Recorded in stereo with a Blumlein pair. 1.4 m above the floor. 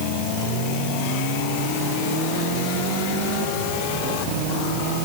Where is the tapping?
I don't hear tapping.